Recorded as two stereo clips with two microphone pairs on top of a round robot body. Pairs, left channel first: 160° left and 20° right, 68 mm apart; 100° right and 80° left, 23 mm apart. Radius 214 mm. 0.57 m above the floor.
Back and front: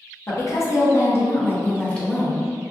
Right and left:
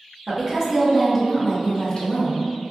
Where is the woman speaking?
140° left, 1.1 m; by 2.5 s 115° right, 1.0 m.